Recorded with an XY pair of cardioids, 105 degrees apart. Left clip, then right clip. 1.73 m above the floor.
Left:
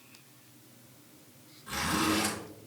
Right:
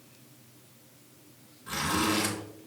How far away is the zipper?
About 3.5 m.